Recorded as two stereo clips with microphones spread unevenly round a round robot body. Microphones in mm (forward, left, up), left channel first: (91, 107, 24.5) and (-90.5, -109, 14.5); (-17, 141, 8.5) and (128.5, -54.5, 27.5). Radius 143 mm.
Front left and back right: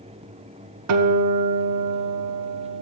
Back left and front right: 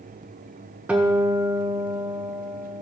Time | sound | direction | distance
0.9 | a guitar | 140° right | 0.8 m